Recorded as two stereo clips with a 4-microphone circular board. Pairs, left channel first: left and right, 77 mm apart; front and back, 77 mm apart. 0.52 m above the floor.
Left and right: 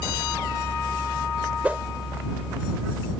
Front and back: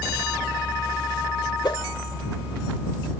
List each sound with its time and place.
1.6 s a whoosh: 20° right